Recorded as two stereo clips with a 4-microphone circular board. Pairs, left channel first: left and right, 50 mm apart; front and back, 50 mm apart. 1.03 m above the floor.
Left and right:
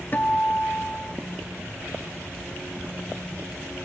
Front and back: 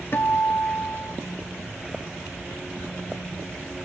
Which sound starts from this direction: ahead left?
A guitar, at 0.1 s.